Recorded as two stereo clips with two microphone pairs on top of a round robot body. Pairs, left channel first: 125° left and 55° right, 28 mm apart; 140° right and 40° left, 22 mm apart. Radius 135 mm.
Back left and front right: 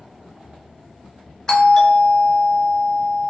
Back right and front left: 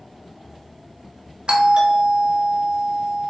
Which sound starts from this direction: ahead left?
A doorbell, at 1.5 s.